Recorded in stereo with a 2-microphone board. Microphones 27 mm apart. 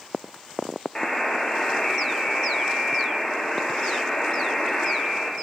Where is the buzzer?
30° left (ahead or behind), 1.4 m.